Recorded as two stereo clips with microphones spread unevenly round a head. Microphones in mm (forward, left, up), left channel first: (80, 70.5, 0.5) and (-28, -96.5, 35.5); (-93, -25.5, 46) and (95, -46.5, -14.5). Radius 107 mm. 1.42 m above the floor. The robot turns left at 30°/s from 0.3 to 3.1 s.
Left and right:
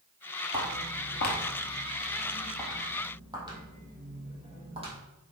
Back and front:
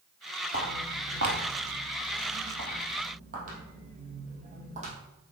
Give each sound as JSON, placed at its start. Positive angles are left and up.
{"t": 0.5, "sound": "footsteps", "azimuth_deg": 55, "distance_m": 1.9}